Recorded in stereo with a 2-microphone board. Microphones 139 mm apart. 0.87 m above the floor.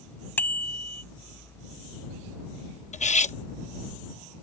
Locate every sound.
0.4 s a bicycle bell: 15° left (ahead or behind)
2.9 s cutlery clinking: 65° left (ahead or behind)